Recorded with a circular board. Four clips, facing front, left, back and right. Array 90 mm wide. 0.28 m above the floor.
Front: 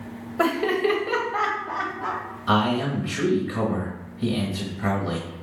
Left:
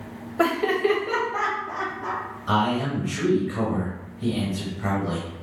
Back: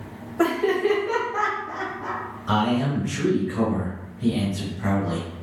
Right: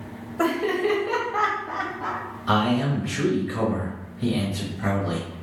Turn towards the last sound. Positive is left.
turn(degrees=-25)